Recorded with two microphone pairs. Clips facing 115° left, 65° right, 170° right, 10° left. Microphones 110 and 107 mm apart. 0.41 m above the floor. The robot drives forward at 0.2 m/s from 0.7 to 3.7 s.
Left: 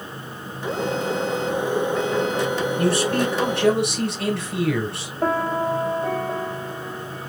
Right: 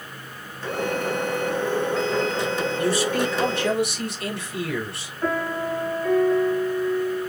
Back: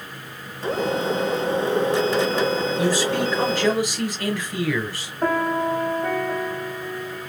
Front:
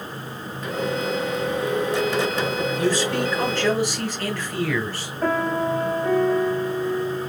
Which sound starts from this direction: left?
A man speaking, at 2.8 s.